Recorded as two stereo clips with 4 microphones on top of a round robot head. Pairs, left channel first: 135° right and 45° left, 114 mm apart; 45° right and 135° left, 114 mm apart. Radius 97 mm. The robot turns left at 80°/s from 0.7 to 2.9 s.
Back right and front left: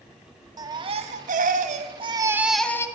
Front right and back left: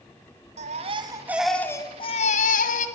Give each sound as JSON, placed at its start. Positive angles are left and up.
{"t": 0.6, "sound": "a baby crying", "azimuth_deg": 105, "distance_m": 1.8}